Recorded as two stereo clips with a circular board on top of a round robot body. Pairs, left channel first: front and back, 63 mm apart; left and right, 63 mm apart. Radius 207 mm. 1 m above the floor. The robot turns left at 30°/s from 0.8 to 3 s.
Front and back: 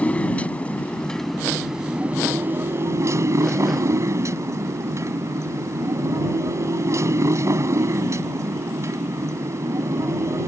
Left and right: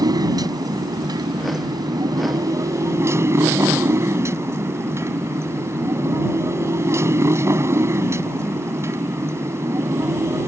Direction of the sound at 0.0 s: 70° right.